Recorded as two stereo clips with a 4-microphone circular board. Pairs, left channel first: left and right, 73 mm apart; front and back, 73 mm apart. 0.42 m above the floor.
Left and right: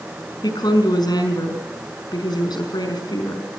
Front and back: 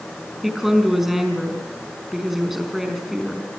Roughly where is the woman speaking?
Left.